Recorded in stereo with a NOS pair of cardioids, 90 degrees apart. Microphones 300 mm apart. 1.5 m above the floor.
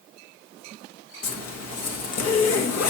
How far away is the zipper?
About 1.7 m.